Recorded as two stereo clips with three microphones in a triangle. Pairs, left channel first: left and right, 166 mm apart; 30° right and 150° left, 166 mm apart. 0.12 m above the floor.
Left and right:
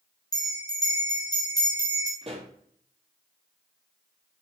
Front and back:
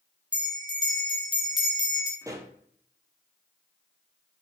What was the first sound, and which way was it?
A bell, 130° left.